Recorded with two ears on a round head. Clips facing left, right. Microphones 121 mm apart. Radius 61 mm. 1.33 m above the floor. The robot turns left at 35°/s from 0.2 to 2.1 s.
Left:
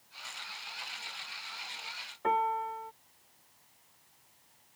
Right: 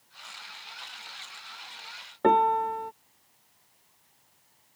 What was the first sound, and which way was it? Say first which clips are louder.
A piano: right 8 dB; 85° right.